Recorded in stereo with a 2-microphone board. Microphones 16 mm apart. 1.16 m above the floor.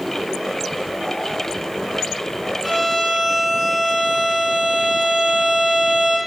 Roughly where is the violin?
Centre.